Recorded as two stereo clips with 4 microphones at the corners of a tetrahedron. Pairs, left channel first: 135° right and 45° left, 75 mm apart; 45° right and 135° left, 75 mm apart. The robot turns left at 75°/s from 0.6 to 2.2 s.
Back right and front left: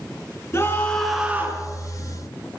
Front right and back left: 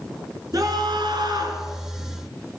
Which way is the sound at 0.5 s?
170° left.